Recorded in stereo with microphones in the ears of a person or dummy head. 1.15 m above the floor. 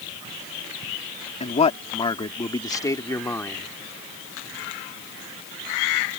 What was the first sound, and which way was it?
A man speaking, 30° left (ahead or behind).